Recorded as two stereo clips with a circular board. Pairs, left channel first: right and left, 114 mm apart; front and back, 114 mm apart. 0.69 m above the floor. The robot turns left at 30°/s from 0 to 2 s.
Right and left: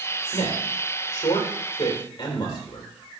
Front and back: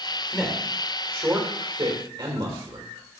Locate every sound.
0.3 s a man speaking: 90° right, 2.5 m; by 2.9 s 140° right, 2.5 m